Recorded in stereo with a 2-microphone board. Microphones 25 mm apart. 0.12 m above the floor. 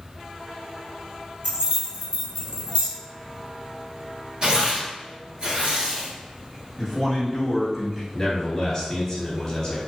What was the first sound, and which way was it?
Keys jangling, 55° right (ahead or behind).